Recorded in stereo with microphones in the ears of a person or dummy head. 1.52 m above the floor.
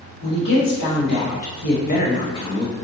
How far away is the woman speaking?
About 1.5 m.